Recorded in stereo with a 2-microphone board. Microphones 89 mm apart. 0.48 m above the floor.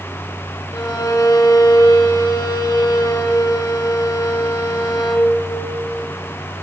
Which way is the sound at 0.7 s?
40° left (ahead or behind).